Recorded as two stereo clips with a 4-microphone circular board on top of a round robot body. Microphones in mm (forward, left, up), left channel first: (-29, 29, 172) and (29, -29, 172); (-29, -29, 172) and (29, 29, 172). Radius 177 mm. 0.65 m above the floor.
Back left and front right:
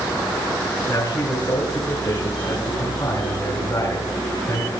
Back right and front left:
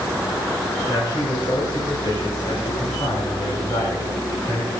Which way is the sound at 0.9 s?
170° right.